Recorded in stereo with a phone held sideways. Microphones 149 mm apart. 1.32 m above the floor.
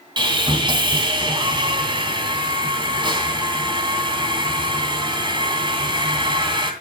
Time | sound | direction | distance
0.2 | sawing | 30° right (ahead or behind) | 2.5 m